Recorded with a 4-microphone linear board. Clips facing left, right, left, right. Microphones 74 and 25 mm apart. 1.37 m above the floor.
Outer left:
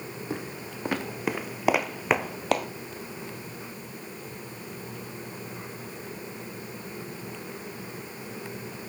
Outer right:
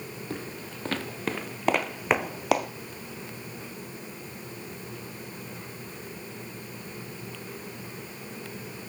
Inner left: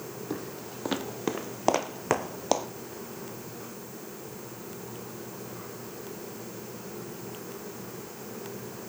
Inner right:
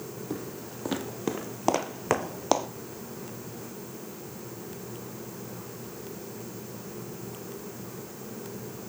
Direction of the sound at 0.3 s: 20° left (ahead or behind).